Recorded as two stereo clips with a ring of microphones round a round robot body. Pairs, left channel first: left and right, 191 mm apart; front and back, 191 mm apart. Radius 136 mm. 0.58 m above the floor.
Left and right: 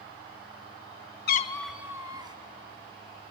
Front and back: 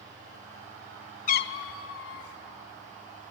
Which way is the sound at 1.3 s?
55° left.